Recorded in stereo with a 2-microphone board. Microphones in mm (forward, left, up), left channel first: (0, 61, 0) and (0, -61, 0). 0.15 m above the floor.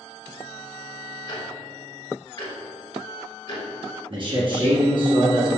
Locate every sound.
1.3 s ticking: 40° left (ahead or behind), 1.2 m
4.1 s a man speaking: 45° right (ahead or behind), 1.4 m